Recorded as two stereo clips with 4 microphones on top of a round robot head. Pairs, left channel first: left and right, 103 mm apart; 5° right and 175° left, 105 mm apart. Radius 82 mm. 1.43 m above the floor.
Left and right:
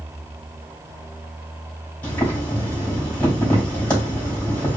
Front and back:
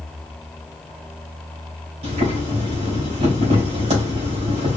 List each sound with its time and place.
2.0 s boiling: 165° left, 3 m